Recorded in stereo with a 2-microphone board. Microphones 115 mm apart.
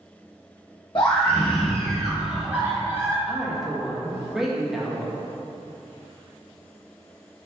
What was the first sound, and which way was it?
A scream, 40° left (ahead or behind).